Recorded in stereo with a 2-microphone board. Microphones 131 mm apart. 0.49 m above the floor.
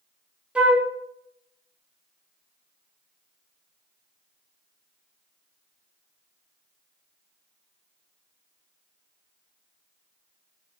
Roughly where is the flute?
Centre.